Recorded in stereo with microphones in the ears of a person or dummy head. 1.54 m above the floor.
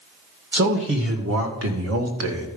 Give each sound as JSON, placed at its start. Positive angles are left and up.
{"t": 0.5, "sound": "a man speaking", "side_deg": -60, "distance_m": 1.7}